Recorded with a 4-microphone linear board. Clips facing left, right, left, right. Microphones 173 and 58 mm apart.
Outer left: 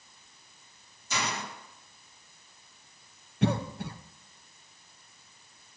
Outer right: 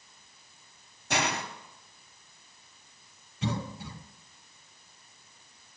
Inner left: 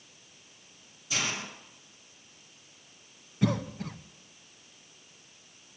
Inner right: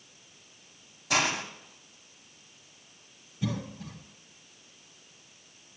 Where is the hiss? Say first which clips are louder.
Outer right 4 dB, inner right 6 dB; 65° right (ahead or behind), 1.0 m.